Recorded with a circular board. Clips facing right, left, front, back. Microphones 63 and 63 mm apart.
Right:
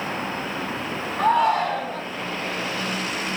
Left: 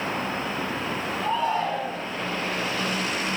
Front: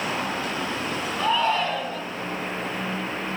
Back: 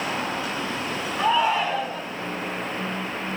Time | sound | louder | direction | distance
1.2 | a shout | right 7 dB, back 2 dB | 105° right | 2.5 m